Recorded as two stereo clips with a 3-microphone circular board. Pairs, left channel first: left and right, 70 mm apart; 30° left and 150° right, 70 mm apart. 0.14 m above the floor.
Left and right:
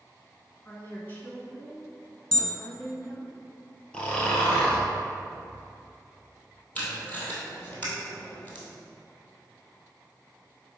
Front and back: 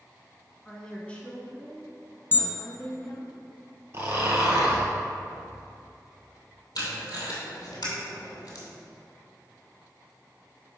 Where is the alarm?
25° left, 0.8 m.